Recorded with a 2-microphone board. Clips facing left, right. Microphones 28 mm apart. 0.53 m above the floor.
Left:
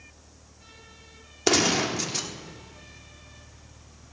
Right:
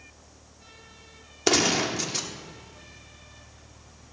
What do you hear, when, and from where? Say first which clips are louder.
1.5 s a gunshot: even; 5° right (ahead or behind), 1.3 m